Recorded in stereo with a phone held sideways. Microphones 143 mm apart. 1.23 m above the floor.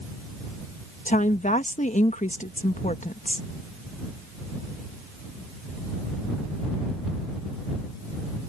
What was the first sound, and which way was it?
A woman speaking, 60° left (ahead or behind).